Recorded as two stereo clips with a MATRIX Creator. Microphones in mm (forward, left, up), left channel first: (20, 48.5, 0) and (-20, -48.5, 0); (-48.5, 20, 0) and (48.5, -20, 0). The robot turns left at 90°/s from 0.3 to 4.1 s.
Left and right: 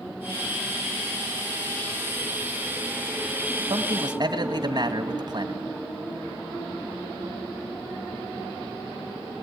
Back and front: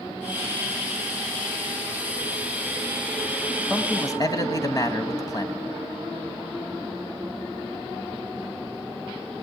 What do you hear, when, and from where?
3.7 s a man speaking: 120° right, 1.8 m; by 5.6 s 155° right, 1.8 m